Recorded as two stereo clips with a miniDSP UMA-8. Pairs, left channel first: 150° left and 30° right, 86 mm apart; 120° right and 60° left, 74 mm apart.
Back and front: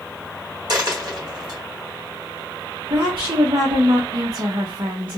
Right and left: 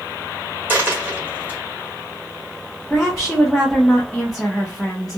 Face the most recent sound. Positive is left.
turn(degrees=-35)